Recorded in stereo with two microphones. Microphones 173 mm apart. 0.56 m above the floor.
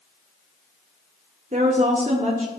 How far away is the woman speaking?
About 1.9 m.